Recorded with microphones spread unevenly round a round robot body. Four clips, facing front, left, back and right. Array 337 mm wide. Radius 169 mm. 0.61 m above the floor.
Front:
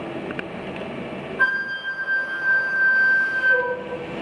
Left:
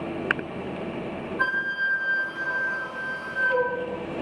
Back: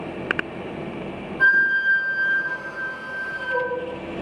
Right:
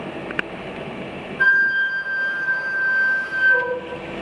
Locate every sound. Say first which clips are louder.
1.4 s a flute: right 10 dB, back 5 dB; 45° left, 0.8 m